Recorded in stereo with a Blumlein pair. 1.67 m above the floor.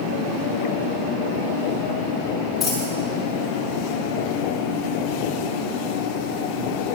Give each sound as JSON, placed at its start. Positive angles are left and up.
{"t": 2.6, "sound": "a dropped coin", "azimuth_deg": 20, "distance_m": 5.5}